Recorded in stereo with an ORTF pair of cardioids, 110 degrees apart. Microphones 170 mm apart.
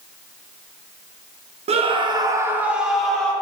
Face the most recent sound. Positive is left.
turn(degrees=5)